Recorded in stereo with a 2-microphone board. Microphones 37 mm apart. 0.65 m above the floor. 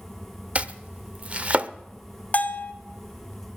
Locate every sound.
0.6 s chopping: 35° right (ahead or behind), 0.5 m
2.3 s a bell: 45° left (ahead or behind), 1.3 m